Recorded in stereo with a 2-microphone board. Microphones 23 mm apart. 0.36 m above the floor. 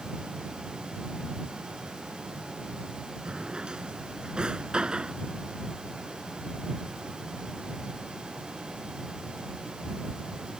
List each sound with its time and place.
3.2 s a drawer: 40° right (ahead or behind)